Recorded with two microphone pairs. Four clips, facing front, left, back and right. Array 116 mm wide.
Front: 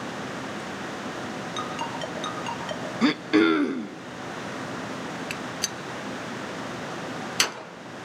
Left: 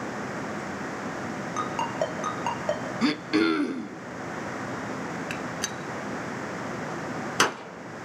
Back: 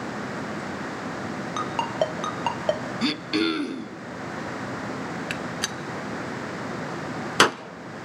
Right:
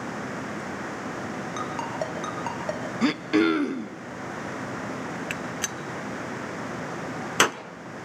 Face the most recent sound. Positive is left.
turn(degrees=-170)